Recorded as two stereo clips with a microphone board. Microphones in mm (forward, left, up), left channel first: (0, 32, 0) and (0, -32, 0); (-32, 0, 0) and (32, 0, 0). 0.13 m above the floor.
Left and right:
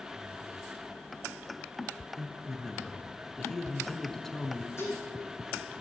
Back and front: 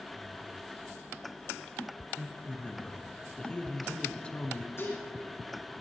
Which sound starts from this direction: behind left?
Dishes clattering, at 4.8 s.